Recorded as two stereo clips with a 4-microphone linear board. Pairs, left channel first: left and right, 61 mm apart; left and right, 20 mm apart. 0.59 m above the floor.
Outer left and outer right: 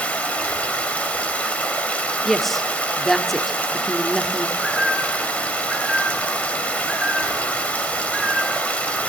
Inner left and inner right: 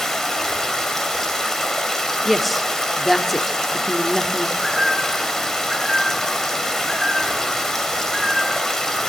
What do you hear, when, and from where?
0.0 s running water: 20° left (ahead or behind), 3 m
2.2 s a woman speaking: centre (ahead or behind), 1.4 m
4.6 s a bird: 5° right (ahead or behind), 7 m